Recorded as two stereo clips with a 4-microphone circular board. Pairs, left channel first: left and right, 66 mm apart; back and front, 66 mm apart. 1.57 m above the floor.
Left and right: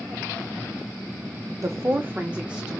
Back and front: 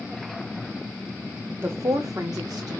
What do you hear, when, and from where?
1.6 s a woman speaking: 55° right, 0.6 m; by 2.8 s 10° right, 1.5 m